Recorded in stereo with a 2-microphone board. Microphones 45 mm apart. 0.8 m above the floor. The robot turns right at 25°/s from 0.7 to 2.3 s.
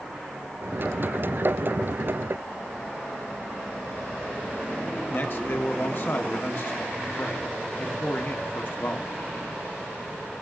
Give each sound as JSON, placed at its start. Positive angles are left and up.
{"t": 5.1, "sound": "a man speaking", "side_deg": 50, "distance_m": 1.6}